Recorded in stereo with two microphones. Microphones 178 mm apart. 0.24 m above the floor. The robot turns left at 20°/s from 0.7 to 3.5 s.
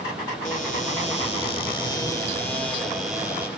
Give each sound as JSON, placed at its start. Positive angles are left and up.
{"t": 0.5, "sound": "a cupboard door", "azimuth_deg": 45, "distance_m": 6.5}